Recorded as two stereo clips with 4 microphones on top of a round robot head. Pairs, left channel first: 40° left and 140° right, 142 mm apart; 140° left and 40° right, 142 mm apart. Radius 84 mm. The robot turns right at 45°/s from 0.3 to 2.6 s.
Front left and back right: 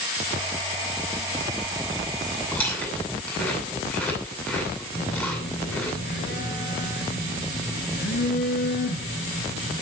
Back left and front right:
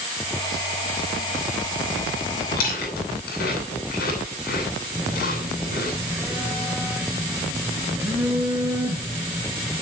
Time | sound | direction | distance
2.5 | chewing | 115° left | 9.5 m
4.9 | a phone buzzing | 35° left | 4 m